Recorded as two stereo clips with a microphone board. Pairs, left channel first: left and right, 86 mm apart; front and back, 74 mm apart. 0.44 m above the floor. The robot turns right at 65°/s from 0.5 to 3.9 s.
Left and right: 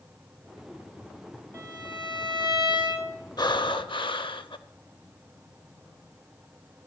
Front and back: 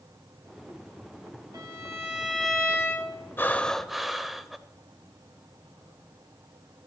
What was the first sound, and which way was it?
A violin, 145° right.